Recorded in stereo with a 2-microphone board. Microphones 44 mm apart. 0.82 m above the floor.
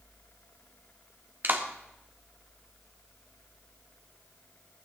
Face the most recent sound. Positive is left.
turn(degrees=-45)  # may be behind; listen again after turning